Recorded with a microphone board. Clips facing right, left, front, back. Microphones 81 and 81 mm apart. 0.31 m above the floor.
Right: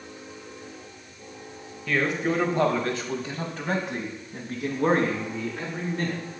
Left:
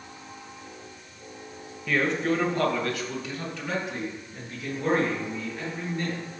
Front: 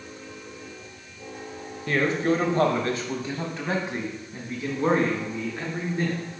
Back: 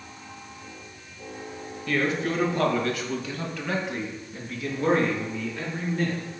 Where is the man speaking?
5° left, 1.1 m; by 6.2 s 70° right, 3.5 m.